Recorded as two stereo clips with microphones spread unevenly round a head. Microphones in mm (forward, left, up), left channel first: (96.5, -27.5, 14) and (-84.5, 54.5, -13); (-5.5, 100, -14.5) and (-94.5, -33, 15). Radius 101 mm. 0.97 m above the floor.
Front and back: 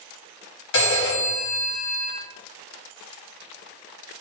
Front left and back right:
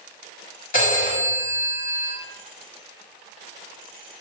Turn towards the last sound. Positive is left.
turn(degrees=5)